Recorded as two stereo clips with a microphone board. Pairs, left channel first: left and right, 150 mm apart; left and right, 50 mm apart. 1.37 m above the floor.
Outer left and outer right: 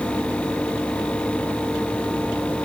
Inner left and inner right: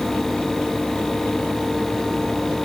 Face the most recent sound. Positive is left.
No sound to turn to.